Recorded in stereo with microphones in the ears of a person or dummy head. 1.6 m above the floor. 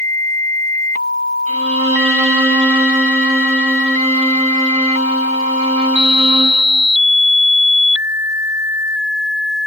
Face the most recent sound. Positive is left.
turn(degrees=-35)  # may be behind; listen again after turning